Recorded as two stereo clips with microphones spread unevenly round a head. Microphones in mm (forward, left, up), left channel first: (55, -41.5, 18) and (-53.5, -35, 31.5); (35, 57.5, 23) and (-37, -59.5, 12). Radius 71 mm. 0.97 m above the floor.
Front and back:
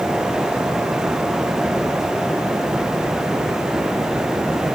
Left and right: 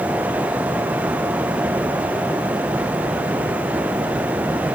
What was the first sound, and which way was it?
Only background noise.